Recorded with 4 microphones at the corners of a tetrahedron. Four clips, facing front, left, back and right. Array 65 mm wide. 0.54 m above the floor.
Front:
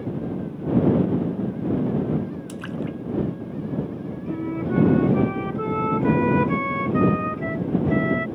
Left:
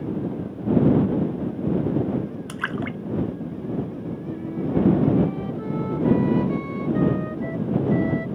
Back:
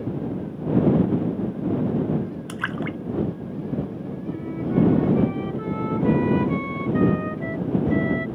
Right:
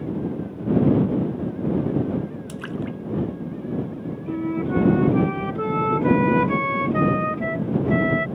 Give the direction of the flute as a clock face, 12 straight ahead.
2 o'clock.